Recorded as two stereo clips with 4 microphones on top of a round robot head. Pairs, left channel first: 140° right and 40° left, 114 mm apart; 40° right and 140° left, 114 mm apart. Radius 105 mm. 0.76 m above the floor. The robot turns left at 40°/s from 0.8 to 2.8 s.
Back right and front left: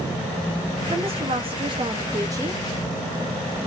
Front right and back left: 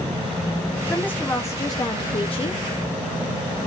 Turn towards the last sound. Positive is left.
turn(degrees=-35)